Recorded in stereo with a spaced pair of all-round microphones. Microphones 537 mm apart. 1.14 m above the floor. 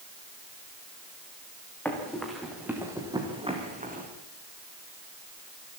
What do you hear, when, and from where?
1.9 s running footsteps: 5° left (ahead or behind), 5.5 m; by 4.1 s 15° right (ahead or behind), 4.5 m